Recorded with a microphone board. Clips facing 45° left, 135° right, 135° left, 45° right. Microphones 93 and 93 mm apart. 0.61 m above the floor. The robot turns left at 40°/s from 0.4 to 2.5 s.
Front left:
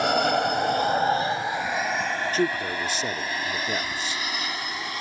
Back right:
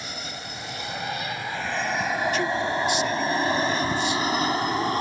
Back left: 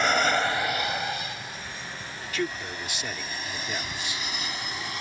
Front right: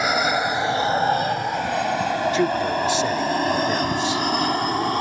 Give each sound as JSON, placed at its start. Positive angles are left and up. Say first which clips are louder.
{"t": 0.0, "sound": "an aircraft", "louder": "front left 16 dB, front right 3 dB", "azimuth_deg": 35}
{"t": 2.3, "sound": "a man speaking", "louder": "back right 1 dB, front right 11 dB", "azimuth_deg": 15}